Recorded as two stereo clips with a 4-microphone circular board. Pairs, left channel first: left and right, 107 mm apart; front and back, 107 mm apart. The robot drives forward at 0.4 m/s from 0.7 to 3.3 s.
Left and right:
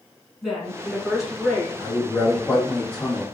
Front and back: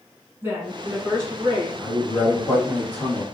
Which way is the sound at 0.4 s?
175° right.